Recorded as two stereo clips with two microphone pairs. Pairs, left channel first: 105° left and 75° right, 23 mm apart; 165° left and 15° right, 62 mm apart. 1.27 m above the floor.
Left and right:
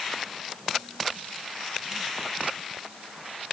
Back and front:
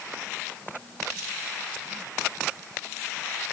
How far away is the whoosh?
I don't hear a whoosh.